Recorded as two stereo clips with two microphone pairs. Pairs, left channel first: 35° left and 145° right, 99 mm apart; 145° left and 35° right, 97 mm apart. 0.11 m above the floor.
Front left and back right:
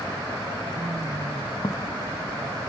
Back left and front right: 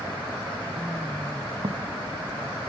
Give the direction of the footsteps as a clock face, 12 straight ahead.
12 o'clock.